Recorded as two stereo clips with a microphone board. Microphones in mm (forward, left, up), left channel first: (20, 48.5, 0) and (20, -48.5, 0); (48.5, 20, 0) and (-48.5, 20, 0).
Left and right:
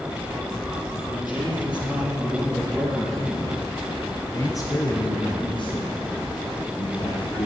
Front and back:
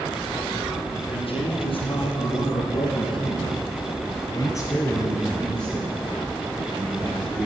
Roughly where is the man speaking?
Ahead.